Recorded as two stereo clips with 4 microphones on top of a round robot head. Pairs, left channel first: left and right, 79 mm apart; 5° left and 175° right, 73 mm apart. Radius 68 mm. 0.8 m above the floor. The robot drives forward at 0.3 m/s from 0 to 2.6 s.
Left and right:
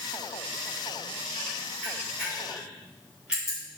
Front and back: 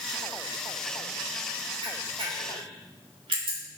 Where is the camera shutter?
170° right, 3 m.